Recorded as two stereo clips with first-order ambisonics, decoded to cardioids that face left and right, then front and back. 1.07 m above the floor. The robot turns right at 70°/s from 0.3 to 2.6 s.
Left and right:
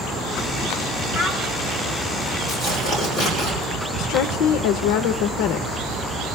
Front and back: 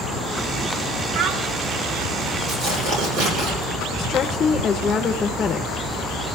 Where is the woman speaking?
65° left, 0.5 m.